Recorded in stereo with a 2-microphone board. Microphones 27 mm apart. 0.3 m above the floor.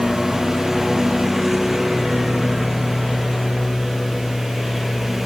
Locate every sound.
0.0 s a lawn mower: 10° right (ahead or behind)